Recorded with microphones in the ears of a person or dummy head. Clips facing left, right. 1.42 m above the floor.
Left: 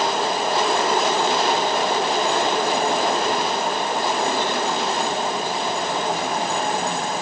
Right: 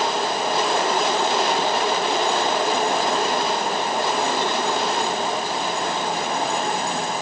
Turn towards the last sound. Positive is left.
No sound to turn to.